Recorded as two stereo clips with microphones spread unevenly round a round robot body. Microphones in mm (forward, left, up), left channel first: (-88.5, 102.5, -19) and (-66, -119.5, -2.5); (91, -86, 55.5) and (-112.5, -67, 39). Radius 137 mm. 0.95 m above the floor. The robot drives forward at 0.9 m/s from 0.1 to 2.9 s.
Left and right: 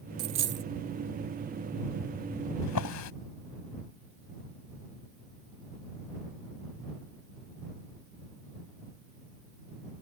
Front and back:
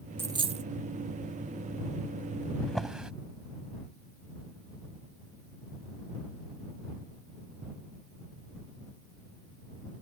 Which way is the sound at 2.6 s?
80° left.